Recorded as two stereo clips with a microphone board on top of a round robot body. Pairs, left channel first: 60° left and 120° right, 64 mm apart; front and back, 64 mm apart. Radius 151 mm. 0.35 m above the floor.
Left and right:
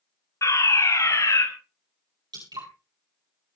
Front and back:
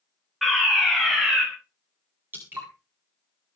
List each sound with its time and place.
0.4 s a fire alarm: 90° left, 5.5 m
2.3 s dripping: 120° right, 10 m